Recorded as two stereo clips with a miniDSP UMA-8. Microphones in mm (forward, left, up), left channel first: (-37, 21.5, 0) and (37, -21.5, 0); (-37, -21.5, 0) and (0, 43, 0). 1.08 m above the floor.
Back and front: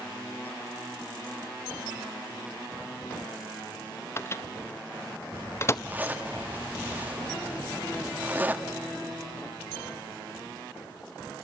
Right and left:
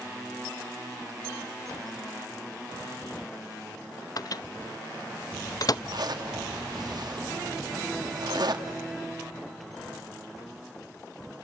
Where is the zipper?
40° left, 1.7 m.